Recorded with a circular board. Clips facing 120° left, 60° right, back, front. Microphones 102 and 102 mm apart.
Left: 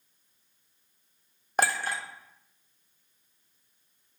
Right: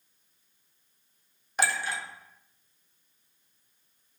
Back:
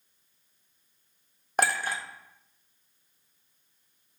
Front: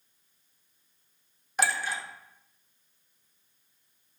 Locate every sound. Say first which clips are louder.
1.6 s a clink: left 2 dB, back 2 dB; 150° left, 0.5 m